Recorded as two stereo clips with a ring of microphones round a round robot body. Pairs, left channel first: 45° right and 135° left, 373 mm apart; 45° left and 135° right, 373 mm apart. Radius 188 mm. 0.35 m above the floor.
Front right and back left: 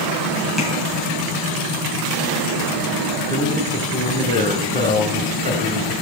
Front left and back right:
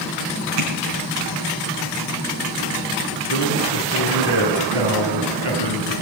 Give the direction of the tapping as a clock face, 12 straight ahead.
5 o'clock.